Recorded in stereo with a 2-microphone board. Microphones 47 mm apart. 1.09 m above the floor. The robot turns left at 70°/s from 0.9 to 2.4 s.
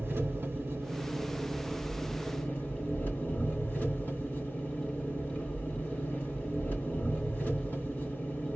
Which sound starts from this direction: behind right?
An engine running, at 0.0 s.